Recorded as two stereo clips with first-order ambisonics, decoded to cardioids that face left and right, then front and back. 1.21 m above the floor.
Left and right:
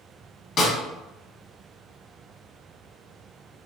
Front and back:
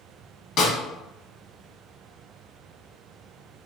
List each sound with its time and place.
0.6 s a snare drum: 35° left, 1.0 m